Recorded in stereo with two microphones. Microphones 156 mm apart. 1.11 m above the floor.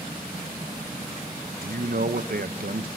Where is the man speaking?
70° right (ahead or behind), 0.9 m.